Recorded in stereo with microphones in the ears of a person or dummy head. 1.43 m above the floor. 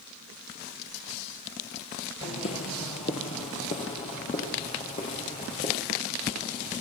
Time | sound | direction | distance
2.2 | footsteps | 35° left (ahead or behind) | 1.7 m